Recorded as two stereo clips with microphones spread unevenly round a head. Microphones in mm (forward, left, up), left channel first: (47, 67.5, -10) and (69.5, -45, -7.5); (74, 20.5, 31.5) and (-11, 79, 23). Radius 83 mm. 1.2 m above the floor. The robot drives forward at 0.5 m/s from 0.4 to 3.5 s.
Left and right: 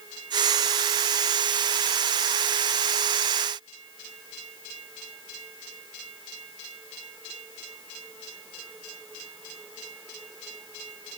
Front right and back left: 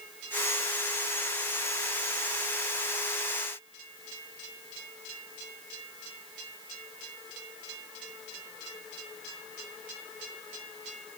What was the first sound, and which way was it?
Only background noise.